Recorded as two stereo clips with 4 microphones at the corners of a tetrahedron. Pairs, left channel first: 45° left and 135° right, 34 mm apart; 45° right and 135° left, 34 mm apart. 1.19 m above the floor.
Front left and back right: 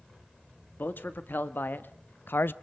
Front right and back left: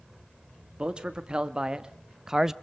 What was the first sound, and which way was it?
A man speaking, 70° left.